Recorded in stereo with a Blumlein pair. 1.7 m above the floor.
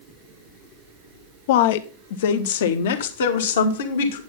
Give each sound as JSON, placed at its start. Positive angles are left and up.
{"t": 1.5, "sound": "a woman speaking", "azimuth_deg": 50, "distance_m": 0.9}